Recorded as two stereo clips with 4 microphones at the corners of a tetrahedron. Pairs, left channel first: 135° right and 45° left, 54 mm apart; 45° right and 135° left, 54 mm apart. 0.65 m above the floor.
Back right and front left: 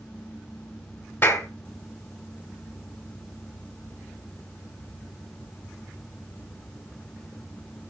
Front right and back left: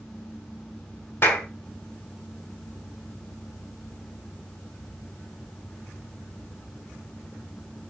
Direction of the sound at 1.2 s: 90° right.